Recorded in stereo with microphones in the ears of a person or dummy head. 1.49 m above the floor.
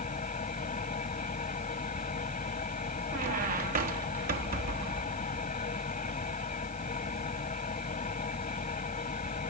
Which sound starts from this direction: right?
A squeak, at 3.1 s.